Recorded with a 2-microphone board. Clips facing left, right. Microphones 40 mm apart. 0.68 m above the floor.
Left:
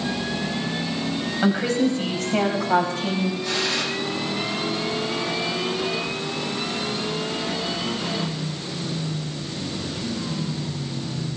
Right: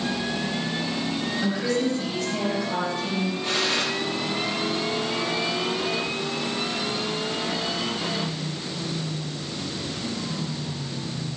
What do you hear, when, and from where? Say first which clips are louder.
1.4 s a woman speaking: left 5 dB; 45° left (ahead or behind), 4 m; by 3.3 s 70° left (ahead or behind), 4 m
3.4 s a gunshot: even; 35° right (ahead or behind), 7 m